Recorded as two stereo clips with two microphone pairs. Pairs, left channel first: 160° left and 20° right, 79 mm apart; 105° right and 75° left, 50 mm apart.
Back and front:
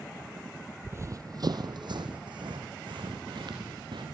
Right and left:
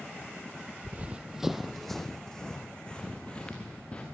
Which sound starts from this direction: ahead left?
Running footsteps, at 0.8 s.